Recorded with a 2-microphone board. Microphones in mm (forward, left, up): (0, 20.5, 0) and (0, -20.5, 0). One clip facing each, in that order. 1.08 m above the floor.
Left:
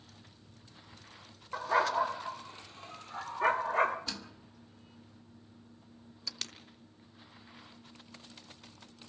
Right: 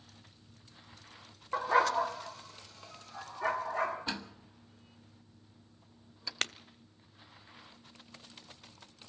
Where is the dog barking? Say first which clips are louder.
Right 1 dB; 15° right (ahead or behind), 0.6 m; by 4.0 s 45° left (ahead or behind), 1.9 m.